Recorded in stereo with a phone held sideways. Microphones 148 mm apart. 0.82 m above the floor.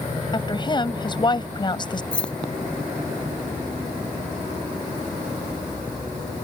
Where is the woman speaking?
30° left (ahead or behind).